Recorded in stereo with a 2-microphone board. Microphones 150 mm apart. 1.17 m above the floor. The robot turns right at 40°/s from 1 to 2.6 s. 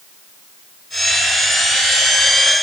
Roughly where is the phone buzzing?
I don't hear a phone buzzing.